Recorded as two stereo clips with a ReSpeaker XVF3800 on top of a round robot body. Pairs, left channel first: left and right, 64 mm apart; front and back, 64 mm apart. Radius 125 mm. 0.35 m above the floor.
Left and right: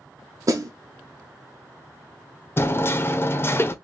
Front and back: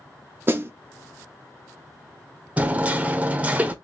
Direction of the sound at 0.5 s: 125° right.